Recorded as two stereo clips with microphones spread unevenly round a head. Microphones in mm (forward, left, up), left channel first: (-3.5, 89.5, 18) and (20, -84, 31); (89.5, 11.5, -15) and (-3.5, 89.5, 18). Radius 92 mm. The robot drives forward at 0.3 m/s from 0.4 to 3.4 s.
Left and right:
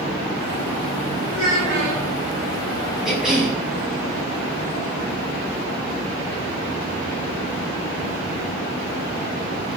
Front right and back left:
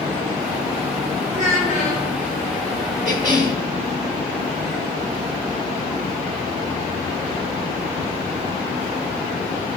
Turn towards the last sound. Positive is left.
turn(degrees=-170)